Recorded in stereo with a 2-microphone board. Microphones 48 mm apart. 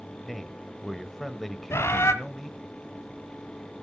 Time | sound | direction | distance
0.2 | a man speaking | 5° left (ahead or behind) | 1.1 m
1.7 | a bird | 65° left (ahead or behind) | 1.4 m